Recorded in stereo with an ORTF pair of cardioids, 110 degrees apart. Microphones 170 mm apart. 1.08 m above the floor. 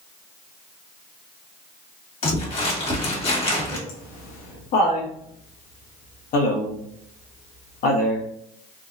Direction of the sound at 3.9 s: 60° left.